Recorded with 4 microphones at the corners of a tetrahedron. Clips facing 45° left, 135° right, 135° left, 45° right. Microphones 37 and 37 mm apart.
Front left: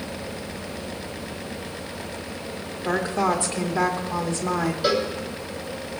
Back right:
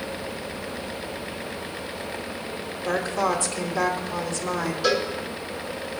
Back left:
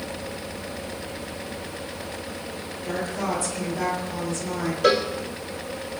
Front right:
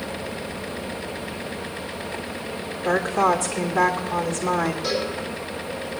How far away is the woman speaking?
About 2 m.